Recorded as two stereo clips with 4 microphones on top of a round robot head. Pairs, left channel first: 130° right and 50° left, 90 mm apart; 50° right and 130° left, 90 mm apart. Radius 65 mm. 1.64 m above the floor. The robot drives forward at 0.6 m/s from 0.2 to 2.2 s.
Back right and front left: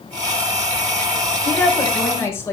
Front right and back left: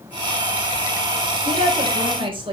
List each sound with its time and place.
1.4 s a woman speaking: 160° left, 2 m; by 2.5 s 165° left, 2.5 m